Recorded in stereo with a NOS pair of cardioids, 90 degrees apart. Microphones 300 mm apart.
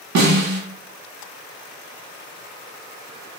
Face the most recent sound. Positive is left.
turn(degrees=-70)